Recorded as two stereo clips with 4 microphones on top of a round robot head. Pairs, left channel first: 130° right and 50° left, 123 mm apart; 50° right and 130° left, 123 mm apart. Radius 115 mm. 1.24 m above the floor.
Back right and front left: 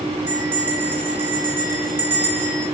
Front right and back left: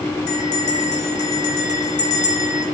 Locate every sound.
0.3 s a bell: 25° right, 8.5 m